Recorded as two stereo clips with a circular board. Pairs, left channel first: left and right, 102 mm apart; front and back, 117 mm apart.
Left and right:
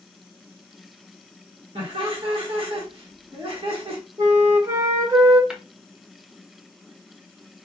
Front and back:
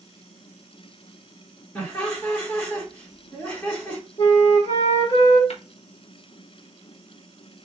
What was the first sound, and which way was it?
Laughter, 70° right.